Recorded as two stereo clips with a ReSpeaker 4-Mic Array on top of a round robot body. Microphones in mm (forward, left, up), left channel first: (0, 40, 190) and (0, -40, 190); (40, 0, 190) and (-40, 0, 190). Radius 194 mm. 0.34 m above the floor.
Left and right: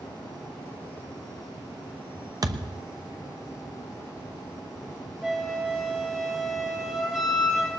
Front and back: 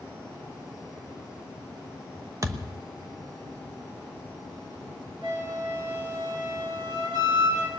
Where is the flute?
170° right, 6 m.